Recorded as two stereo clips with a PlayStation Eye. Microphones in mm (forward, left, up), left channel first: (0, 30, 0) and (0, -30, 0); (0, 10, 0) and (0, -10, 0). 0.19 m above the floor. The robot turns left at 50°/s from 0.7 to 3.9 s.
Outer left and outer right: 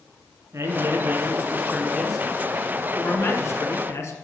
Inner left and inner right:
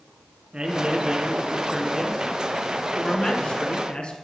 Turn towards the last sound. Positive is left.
turn(degrees=95)